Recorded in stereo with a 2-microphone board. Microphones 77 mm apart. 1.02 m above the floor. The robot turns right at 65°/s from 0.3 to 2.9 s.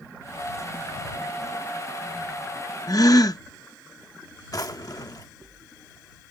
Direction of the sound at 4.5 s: 50° left (ahead or behind).